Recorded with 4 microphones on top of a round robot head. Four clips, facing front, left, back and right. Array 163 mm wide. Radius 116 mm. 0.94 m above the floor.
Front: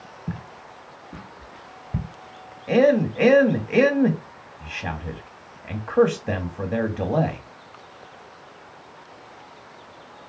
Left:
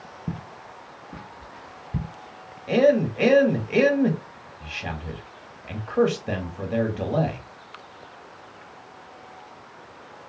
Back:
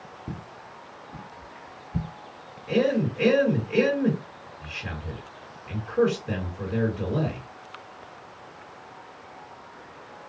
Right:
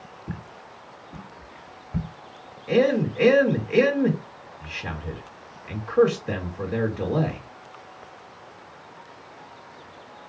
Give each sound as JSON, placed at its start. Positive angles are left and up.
{"t": 0.3, "sound": "footsteps", "azimuth_deg": 85, "distance_m": 1.0}
{"t": 2.7, "sound": "a man speaking", "azimuth_deg": 20, "distance_m": 1.5}